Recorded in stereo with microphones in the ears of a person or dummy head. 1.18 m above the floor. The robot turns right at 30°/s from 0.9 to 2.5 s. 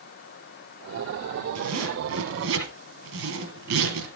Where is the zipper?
65° right (ahead or behind), 4 m; by 4.1 s 75° right (ahead or behind), 4 m.